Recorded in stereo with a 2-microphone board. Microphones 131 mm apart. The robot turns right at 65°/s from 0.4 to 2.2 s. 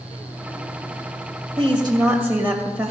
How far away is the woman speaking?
About 2.5 m.